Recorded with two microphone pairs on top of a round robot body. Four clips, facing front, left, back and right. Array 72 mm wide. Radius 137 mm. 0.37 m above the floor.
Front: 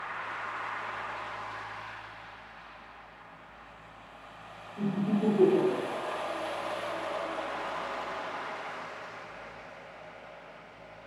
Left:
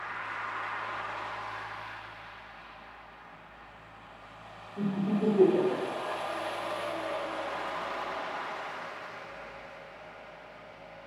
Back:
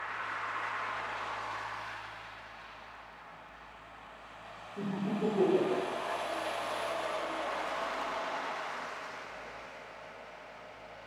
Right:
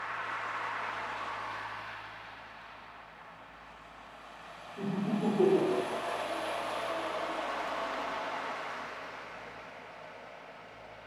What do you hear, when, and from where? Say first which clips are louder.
4.8 s laughter: left 3 dB, front 4 dB; 145° left, 2 m; by 6.2 s 105° left, 2.5 m